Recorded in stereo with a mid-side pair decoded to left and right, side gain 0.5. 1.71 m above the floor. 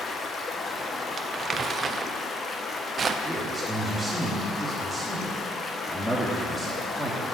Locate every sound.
0.0 s running water: 40° left, 1.5 m
1.2 s crumpling: 35° right, 0.9 m
3.2 s a man speaking: straight ahead, 3 m